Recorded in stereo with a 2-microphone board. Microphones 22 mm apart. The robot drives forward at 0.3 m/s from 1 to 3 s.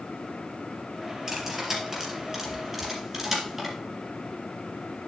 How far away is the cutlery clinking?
About 3.5 m.